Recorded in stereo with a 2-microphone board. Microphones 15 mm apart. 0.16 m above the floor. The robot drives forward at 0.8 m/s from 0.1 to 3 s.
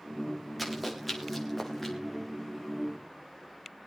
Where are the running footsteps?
5° left (ahead or behind), 5.5 m; by 1.9 s 15° left (ahead or behind), 5 m.